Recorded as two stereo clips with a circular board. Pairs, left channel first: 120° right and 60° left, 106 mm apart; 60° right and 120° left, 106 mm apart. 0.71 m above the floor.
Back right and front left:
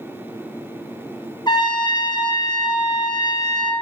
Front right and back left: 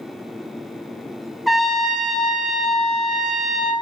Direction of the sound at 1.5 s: 150° right.